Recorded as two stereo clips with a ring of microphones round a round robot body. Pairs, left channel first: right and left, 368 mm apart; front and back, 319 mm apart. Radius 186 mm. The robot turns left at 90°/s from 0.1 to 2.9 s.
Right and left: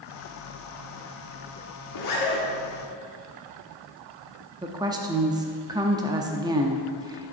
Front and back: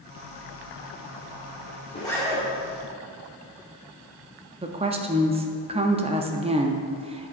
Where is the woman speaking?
150° left, 0.6 m.